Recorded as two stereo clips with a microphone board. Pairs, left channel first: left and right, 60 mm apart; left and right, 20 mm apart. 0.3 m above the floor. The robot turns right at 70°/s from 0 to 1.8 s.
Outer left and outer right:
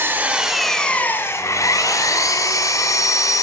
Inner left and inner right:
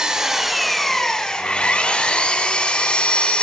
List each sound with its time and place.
0.0 s an engine running: 45° right, 1.4 m; by 3.4 s 80° left, 1.4 m